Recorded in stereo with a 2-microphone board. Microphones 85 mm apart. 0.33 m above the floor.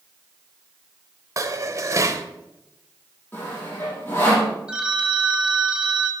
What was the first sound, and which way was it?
Dishes clattering, 35° right (ahead or behind).